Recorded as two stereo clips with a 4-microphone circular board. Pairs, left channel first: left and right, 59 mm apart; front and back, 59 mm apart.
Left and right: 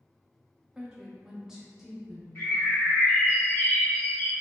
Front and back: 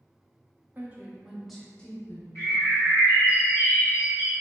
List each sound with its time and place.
0.8 s a woman speaking: 155° right, 1.0 m; by 2.2 s straight ahead, 1.0 m
2.4 s a bird: 45° left, 2.0 m